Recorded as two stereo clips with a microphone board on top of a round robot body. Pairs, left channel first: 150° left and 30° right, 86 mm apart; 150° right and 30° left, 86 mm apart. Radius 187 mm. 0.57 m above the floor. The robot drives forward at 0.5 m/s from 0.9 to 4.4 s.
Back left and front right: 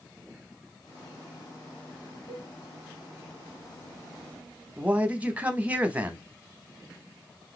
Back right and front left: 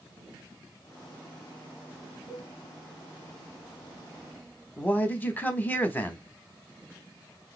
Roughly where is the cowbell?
Behind left.